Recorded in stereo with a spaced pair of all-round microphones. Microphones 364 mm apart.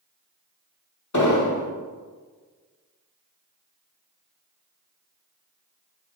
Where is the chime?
I don't hear a chime.